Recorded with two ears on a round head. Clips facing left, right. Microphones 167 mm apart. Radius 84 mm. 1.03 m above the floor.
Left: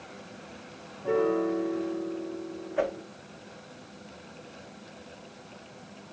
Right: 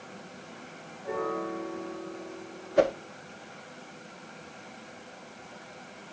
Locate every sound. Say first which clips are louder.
1.0 s a piano: left 7 dB; 55° left (ahead or behind), 2.5 m
2.8 s a whoosh: right 5 dB; 50° right (ahead or behind), 0.6 m